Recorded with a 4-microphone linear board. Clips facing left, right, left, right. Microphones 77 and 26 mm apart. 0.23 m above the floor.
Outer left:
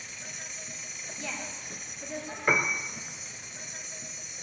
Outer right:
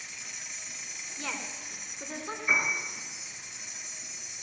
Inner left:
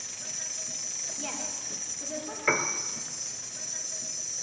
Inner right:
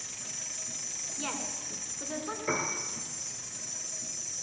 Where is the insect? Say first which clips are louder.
Outer left 2 dB, inner left 3 dB; 50° left (ahead or behind), 1.1 m.